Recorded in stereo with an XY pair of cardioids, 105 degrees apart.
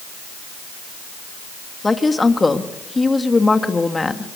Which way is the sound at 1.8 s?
20° left.